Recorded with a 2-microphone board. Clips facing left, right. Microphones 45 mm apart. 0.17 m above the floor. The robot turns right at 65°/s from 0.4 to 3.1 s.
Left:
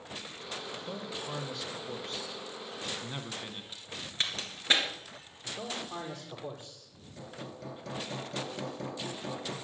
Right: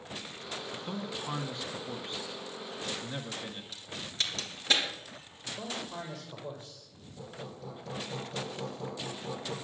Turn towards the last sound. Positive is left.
turn(degrees=65)  # may be behind; listen again after turning